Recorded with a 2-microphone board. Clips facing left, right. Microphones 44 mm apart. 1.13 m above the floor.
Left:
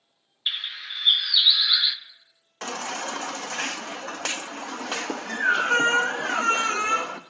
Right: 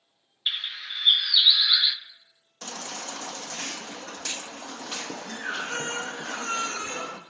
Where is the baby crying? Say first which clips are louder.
Left 7 dB; 70° left (ahead or behind), 0.7 m.